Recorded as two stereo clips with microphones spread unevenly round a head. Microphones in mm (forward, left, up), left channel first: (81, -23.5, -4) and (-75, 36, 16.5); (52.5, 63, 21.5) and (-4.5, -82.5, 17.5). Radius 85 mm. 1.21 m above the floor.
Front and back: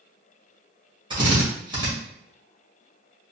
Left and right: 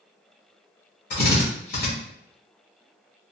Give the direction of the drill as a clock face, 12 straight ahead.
9 o'clock.